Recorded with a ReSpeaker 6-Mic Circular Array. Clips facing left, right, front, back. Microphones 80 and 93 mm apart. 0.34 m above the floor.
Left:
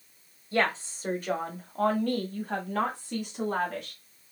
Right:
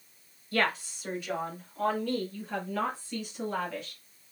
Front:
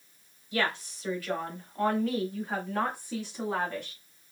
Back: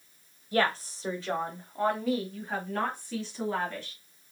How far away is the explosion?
I don't hear an explosion.